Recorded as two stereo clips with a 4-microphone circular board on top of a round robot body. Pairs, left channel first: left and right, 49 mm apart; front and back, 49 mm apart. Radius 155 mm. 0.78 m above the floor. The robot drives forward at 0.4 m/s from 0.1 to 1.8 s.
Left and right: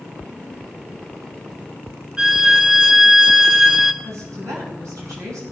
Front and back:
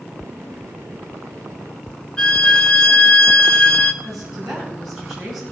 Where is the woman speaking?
90° right, 8.5 m.